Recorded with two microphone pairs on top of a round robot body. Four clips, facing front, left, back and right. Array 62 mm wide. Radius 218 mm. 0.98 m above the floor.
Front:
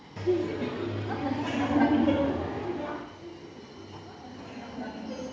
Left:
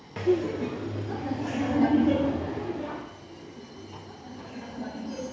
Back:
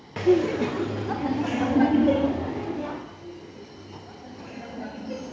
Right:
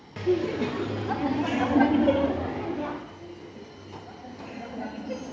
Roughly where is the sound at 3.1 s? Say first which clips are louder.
Right 2 dB, back 2 dB; right.